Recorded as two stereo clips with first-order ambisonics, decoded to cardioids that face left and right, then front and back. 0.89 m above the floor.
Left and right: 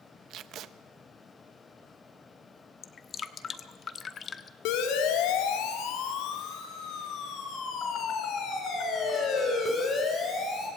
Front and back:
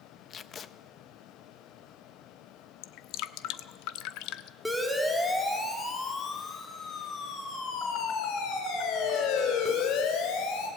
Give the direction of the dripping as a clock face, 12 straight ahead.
11 o'clock.